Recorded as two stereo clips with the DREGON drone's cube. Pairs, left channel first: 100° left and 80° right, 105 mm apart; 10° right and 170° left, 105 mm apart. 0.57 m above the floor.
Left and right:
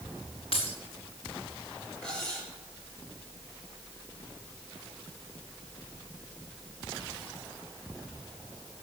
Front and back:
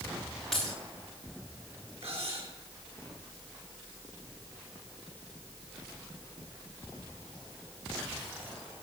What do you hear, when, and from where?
0.5 s breaking glass: 75° left, 4.5 m
2.0 s cutlery clinking: straight behind, 6 m